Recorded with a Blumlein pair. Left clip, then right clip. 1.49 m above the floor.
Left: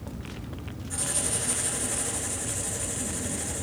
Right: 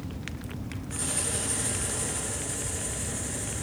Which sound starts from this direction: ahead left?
Writing, at 0.9 s.